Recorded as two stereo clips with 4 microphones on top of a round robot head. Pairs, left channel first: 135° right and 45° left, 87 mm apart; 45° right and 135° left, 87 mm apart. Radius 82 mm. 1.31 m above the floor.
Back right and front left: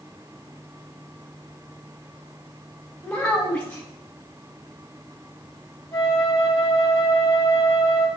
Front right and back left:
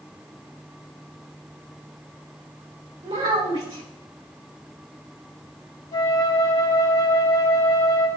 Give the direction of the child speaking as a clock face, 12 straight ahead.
7 o'clock.